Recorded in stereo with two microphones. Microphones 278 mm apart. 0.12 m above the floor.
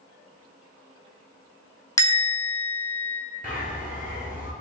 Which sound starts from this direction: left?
A bird, at 3.4 s.